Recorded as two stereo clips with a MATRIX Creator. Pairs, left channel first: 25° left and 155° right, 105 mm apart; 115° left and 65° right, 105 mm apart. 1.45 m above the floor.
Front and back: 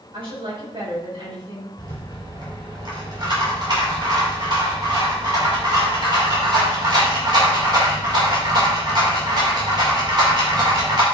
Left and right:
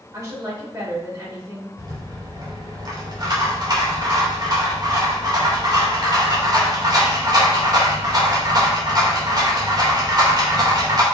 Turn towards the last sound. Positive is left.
turn(degrees=-115)